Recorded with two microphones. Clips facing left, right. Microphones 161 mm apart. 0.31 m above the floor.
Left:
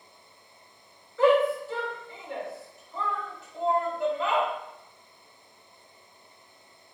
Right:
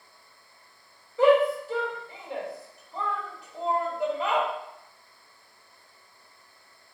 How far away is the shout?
About 1.2 m.